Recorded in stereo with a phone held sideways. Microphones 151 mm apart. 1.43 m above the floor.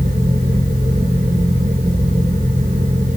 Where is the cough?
I don't hear a cough.